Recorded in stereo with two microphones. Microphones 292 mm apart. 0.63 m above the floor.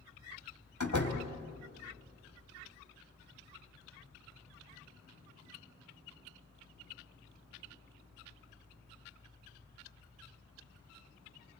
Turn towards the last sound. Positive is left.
turn(degrees=75)  # may be behind; listen again after turning